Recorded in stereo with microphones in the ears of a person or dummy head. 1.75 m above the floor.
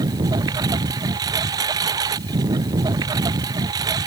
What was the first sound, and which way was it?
A lawn mower, 20° right (ahead or behind).